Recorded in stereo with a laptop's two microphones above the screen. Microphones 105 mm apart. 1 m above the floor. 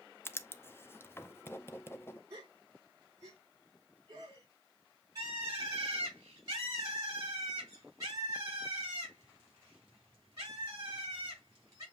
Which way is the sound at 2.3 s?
40° right (ahead or behind).